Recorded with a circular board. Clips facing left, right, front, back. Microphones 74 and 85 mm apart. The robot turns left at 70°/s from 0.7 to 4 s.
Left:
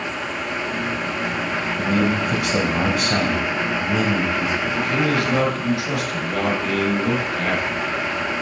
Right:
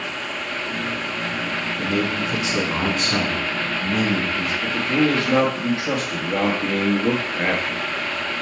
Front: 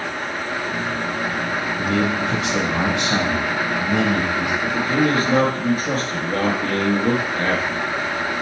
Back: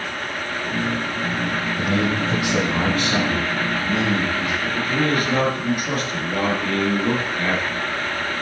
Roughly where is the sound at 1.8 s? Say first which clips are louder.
Left 3 dB, front 1 dB; behind.